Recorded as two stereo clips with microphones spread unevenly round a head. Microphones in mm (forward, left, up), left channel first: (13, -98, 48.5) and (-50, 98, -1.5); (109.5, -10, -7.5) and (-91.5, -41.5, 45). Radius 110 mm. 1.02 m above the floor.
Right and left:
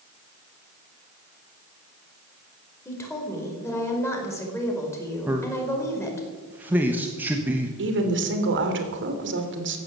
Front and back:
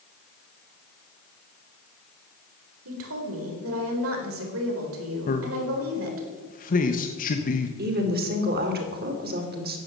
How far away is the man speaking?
About 1.3 m.